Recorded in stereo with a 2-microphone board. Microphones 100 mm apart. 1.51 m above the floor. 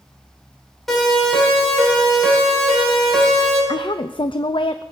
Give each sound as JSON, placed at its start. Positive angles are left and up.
{"t": 0.9, "sound": "a siren", "side_deg": 0, "distance_m": 9.0}
{"t": 3.7, "sound": "a woman speaking", "side_deg": 55, "distance_m": 0.5}